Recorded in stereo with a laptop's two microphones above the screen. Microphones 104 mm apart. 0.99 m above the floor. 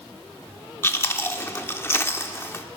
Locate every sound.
0.8 s chewing: 25° left (ahead or behind), 0.9 m